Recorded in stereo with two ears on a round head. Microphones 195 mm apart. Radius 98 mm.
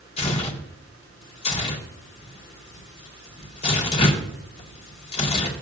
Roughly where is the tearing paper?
Left.